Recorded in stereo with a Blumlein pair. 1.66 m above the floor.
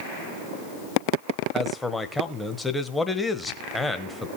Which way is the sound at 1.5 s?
5° left.